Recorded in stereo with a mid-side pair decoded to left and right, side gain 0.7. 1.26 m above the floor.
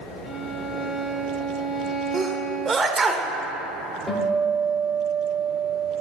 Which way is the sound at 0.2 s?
40° left.